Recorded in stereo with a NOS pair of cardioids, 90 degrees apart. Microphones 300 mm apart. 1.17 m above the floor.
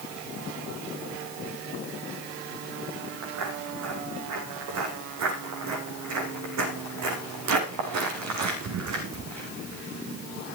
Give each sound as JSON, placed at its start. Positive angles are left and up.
{"t": 3.2, "sound": "footsteps", "azimuth_deg": -70, "distance_m": 4.5}